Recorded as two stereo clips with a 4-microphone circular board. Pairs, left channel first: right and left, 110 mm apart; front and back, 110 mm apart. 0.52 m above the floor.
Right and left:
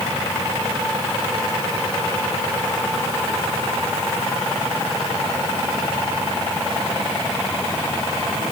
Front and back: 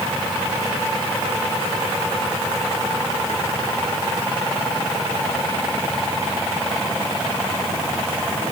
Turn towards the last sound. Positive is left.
No sound to turn to.